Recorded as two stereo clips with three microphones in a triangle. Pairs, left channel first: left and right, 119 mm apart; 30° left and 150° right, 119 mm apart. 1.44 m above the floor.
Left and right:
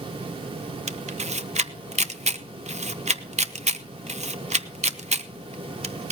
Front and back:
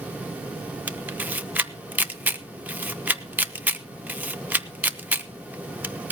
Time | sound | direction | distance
0.9 | a camera shutter | 75° right | 0.7 m